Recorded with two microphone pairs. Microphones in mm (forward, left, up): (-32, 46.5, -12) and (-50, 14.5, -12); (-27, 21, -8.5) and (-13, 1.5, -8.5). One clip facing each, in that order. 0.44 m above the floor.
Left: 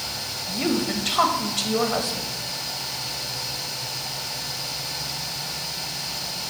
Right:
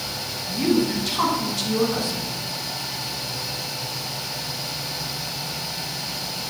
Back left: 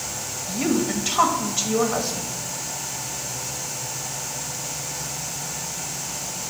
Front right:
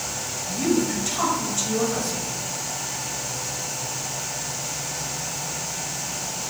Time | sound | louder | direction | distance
0.5 | a woman speaking | right 4 dB, even | 80° left | 1.6 m